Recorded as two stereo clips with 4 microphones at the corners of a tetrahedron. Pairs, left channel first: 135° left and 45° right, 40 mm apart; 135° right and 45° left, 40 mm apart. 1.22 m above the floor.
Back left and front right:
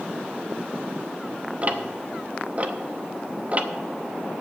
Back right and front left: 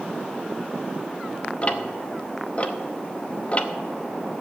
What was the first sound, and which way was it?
Ticking, 90° right.